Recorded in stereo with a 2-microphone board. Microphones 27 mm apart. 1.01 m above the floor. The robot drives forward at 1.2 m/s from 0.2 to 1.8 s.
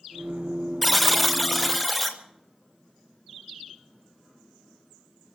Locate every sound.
0.8 s a buzzer: centre (ahead or behind), 0.8 m